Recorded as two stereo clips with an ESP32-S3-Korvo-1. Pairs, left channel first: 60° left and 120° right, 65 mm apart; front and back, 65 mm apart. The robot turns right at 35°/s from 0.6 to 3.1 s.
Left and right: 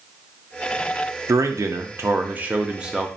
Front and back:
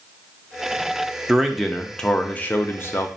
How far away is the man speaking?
About 0.5 m.